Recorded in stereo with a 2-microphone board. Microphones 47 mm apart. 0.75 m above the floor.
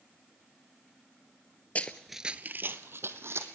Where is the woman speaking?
I don't hear a woman speaking.